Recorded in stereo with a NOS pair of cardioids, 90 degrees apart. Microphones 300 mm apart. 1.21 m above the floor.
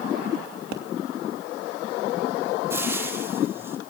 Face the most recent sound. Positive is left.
turn(degrees=-10)